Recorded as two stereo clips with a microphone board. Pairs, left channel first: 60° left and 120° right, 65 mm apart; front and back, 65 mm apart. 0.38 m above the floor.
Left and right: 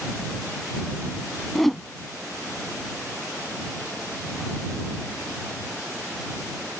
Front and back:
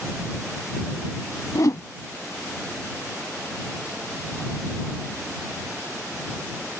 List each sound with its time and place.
1.6 s a whoosh: 25° right